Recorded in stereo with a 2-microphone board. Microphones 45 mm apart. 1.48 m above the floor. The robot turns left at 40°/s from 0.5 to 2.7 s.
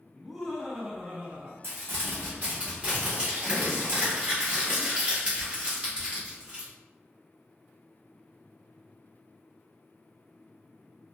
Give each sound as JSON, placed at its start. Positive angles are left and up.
{"t": 0.1, "sound": "laughter", "azimuth_deg": 0, "distance_m": 0.7}
{"t": 1.6, "sound": "crumpling", "azimuth_deg": -110, "distance_m": 1.1}